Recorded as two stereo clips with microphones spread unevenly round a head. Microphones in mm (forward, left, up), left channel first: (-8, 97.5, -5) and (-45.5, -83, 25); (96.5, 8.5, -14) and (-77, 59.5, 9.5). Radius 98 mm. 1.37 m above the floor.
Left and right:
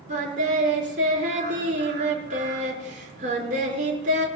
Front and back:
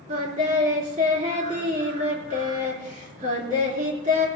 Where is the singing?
145° right, 4 m.